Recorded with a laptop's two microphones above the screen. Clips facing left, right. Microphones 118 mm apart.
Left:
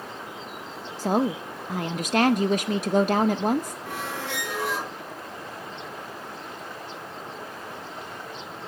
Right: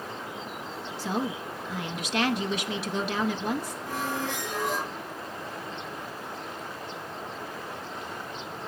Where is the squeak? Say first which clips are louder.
Right 2 dB; 85° left, 5 m.